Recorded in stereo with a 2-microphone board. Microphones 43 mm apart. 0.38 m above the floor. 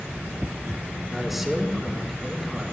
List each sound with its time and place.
1.1 s a man speaking: 5° right (ahead or behind), 4 m